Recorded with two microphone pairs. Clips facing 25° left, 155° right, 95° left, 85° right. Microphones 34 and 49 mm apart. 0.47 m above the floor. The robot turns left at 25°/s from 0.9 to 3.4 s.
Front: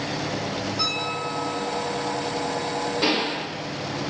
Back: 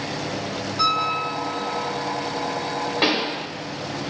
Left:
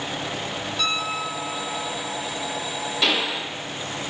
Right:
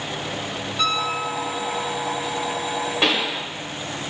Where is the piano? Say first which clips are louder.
Back 9 dB, right 4 dB; 150° right, 1.0 m; by 1.9 s 175° right, 1.0 m.